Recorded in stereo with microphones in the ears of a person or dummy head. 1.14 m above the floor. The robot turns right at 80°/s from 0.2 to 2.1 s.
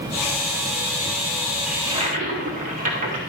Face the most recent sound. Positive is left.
turn(degrees=-140)